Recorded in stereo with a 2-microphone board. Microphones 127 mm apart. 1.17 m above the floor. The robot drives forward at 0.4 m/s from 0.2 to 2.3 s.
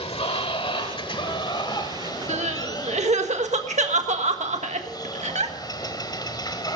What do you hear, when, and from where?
0.0 s running water: 50° left (ahead or behind), 1.2 m; by 6.8 s 35° left (ahead or behind), 1.7 m
2.3 s crying: 65° right (ahead or behind), 1.5 m